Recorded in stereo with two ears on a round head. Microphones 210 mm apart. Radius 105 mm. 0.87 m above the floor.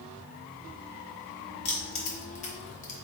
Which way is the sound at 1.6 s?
30° left (ahead or behind).